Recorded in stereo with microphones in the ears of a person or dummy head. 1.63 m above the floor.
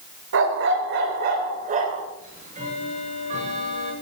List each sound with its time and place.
0.3 s a dog barking: 70° right (ahead or behind), 3 m; by 2.1 s 45° right (ahead or behind), 3 m
2.2 s ticking: 50° right (ahead or behind), 8 m